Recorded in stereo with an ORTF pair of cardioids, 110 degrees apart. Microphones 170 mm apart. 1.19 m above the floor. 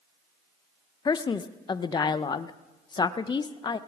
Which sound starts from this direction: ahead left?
A man speaking, at 1.1 s.